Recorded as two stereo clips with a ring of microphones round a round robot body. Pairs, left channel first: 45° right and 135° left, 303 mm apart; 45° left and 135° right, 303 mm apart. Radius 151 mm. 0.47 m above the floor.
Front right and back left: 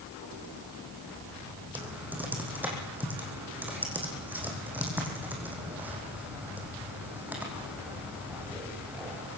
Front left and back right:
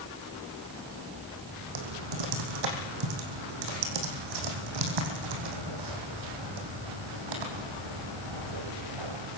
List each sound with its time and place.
1.8 s typing on a keyboard: 140° right, 4 m